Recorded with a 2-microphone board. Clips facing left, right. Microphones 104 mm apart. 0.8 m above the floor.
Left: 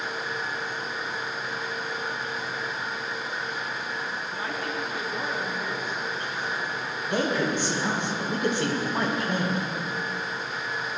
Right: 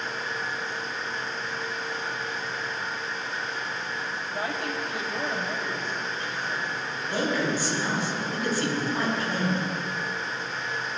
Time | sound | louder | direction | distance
4.2 | a woman speaking | right 1 dB | 75° right (ahead or behind) | 4.5 m
7.1 | a man speaking | left 1 dB | 25° left (ahead or behind) | 5 m